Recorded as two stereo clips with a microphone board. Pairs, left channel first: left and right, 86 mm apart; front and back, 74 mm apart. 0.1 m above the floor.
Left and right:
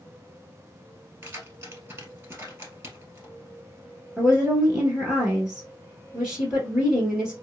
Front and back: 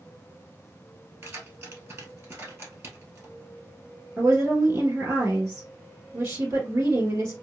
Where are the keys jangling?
140° right, 1.6 m.